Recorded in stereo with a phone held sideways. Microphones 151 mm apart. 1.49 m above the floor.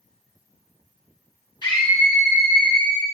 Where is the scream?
30° left (ahead or behind), 1.2 m.